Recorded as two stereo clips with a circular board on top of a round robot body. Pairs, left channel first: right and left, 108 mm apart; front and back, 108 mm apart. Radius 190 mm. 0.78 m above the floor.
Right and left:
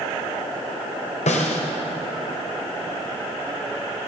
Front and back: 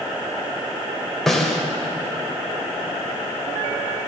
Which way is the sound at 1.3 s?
85° right.